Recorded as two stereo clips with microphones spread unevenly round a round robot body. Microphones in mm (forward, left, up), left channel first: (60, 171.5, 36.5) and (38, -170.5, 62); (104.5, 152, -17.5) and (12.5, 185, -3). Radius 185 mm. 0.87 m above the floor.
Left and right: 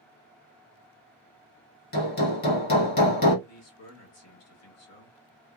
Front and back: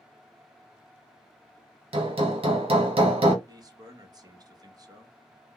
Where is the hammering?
145° left, 1.3 m.